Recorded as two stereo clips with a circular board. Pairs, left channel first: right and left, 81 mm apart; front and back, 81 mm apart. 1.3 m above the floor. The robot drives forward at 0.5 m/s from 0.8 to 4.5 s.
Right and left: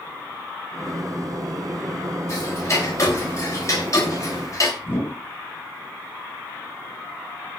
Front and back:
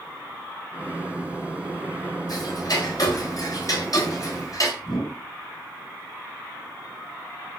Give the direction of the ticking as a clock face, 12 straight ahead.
1 o'clock.